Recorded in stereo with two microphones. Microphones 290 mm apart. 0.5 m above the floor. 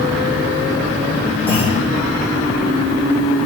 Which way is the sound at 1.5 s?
5° right (ahead or behind).